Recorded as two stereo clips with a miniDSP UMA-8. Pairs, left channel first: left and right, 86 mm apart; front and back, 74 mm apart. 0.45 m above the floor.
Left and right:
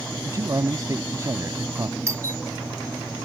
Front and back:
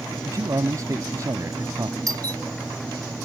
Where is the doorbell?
145° right.